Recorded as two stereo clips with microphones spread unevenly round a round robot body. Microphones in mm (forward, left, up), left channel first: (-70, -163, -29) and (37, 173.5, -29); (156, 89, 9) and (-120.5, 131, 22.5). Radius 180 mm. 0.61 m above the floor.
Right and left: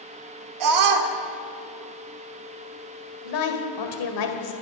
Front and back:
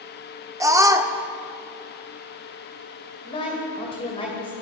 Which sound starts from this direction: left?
A scream, at 0.6 s.